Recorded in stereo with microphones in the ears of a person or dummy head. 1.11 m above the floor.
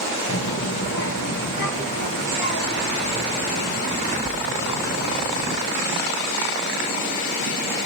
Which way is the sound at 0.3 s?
80° left.